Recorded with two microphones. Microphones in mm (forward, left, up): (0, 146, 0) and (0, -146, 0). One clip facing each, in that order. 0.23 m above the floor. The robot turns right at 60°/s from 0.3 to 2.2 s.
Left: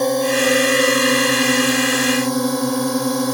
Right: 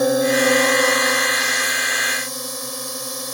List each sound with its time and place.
0.0 s a drone: 5° right; by 3.4 s 105° left